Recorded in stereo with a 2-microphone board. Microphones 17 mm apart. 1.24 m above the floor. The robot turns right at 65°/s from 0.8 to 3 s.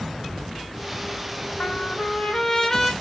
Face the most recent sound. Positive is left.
turn(degrees=-175)